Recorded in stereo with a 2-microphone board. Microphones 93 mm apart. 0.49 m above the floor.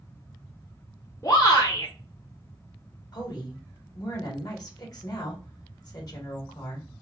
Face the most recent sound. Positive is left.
turn(degrees=45)  # may be behind; listen again after turning